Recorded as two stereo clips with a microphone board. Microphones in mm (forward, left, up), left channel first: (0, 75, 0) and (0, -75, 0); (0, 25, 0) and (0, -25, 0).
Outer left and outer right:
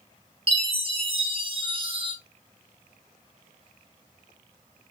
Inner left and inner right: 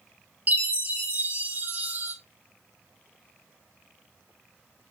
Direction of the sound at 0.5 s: 35° right (ahead or behind).